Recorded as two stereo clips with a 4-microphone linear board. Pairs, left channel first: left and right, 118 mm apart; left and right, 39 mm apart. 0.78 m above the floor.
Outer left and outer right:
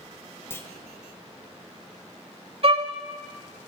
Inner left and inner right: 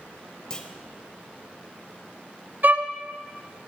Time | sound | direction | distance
0.5 | a clunk | 20° left (ahead or behind) | 0.8 m
2.6 | a violin | 60° right (ahead or behind) | 0.8 m